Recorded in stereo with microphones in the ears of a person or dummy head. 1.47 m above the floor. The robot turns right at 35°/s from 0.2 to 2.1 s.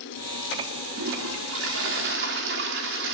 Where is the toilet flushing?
105° right, 2.5 m; by 3.1 s 65° right, 2.5 m.